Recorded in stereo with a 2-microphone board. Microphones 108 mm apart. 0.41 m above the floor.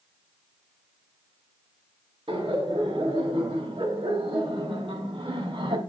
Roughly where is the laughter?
Right.